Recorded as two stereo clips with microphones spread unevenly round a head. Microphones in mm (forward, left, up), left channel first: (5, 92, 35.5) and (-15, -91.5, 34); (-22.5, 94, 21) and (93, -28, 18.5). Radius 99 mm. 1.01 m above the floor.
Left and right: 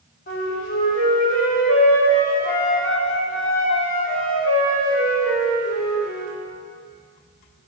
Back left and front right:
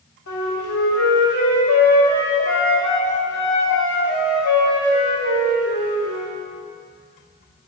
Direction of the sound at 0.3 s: 125° left.